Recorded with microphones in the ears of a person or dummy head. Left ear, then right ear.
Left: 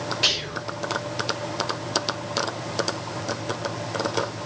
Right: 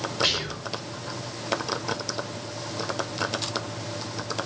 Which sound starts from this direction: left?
Whispering, at 0.2 s.